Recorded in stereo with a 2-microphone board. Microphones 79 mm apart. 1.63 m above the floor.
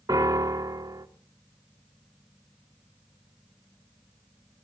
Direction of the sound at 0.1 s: 50° right (ahead or behind).